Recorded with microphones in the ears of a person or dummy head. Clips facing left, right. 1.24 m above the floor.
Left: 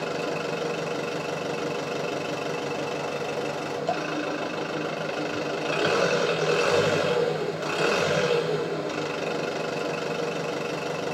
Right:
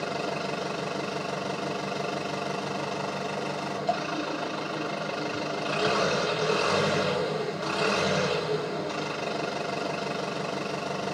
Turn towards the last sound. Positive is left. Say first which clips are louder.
# left 2 dB
turn(degrees=30)  # may be behind; listen again after turning